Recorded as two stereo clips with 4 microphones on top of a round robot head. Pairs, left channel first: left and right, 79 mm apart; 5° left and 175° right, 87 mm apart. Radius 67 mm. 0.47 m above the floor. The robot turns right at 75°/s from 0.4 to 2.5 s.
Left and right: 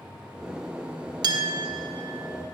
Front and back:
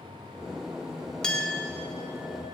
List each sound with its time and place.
1.2 s a clink: 80° right, 0.8 m; by 2.5 s 15° left, 0.8 m